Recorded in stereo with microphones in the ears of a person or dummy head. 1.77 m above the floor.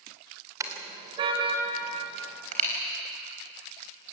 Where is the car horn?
20° right (ahead or behind), 2.5 m; by 2.7 s 45° right (ahead or behind), 4 m.